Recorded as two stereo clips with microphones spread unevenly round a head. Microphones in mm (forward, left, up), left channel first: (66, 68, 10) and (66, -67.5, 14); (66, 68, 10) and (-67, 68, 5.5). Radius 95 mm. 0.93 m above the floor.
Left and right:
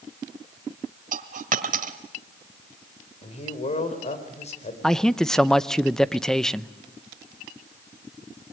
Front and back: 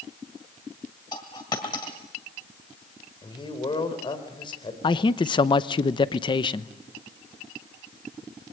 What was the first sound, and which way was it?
A dropped coin, 70° right.